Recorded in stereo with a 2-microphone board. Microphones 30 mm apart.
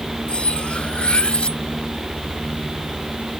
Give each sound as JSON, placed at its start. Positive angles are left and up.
{"t": 0.3, "sound": "cutlery clinking", "side_deg": 40}